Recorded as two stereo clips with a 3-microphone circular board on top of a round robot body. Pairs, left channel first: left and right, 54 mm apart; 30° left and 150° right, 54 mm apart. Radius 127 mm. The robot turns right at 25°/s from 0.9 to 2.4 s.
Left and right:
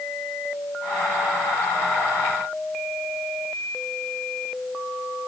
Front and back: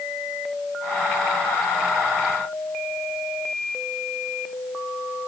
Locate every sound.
Only background noise.